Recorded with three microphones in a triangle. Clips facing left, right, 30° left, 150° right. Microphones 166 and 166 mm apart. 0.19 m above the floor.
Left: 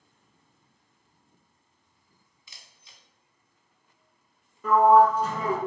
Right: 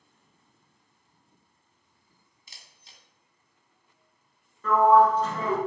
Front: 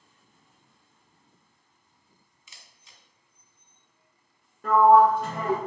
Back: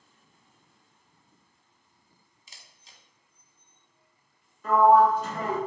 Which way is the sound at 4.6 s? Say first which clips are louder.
Left 1 dB, front 1 dB; 15° left.